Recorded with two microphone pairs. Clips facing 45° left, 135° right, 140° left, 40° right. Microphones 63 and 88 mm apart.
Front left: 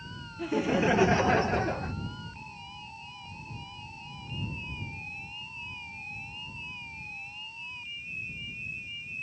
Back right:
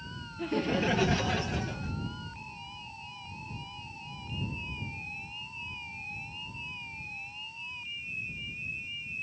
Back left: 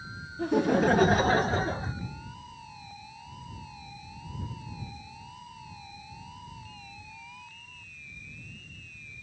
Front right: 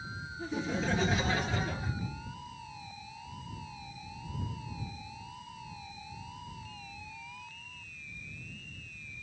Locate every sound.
0.4 s laughter: 130° left; by 1.9 s 85° left